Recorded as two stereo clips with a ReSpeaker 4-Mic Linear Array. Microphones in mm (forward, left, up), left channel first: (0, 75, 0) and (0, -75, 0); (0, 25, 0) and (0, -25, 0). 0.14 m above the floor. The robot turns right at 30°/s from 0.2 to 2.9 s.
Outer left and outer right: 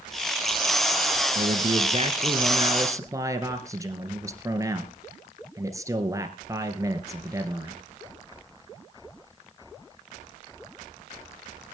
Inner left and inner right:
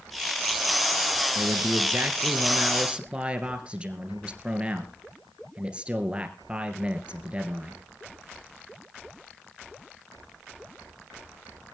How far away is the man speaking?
About 2.5 m.